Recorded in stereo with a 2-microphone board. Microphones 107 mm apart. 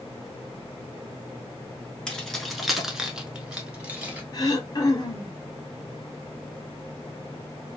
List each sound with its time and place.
2.1 s keys jangling: 5° left (ahead or behind), 0.8 m; by 4.2 s 15° right (ahead or behind), 1.1 m
4.3 s throat clearing: 35° left (ahead or behind), 0.8 m